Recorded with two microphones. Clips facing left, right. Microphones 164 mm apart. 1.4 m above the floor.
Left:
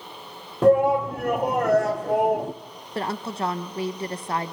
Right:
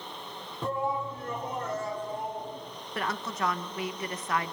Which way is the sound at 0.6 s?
75° left (ahead or behind).